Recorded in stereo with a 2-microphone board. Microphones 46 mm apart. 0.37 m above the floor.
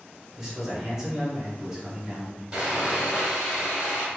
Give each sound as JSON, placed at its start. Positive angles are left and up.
{"t": 0.4, "sound": "a man speaking", "side_deg": -10, "distance_m": 1.4}
{"t": 2.5, "sound": "sawing", "side_deg": -25, "distance_m": 1.3}